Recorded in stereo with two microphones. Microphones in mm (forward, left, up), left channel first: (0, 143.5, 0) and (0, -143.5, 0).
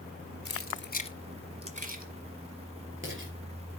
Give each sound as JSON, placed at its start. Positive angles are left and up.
{"t": 0.5, "sound": "keys jangling", "side_deg": 55, "distance_m": 1.1}